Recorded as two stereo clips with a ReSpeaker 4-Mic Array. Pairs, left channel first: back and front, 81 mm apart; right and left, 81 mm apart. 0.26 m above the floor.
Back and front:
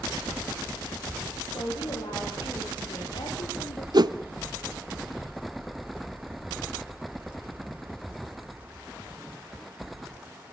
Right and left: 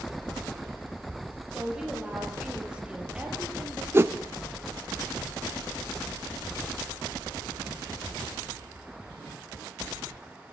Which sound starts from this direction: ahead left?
A whoosh, at 3.9 s.